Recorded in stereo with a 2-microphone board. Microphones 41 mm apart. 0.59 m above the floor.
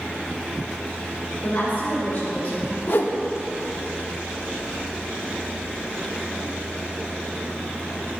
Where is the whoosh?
55° left (ahead or behind), 0.7 m.